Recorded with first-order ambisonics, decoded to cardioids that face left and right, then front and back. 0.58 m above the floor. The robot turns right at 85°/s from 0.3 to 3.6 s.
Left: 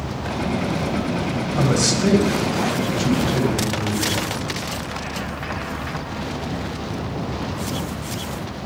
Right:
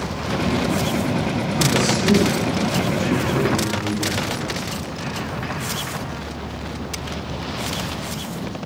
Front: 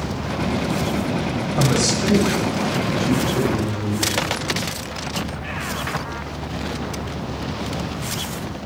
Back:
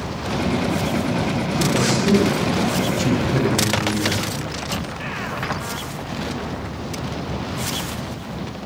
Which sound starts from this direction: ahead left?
A man speaking, at 1.6 s.